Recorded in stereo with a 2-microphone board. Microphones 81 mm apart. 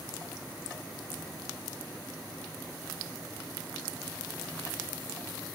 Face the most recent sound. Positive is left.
No sound to turn to.